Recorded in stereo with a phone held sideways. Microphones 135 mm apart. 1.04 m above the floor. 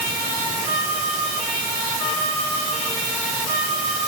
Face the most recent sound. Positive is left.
No sound to turn to.